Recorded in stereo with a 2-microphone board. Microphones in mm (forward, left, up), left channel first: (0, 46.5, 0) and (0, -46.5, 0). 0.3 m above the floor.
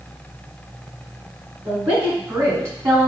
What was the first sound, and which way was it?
A woman speaking, 25° right (ahead or behind).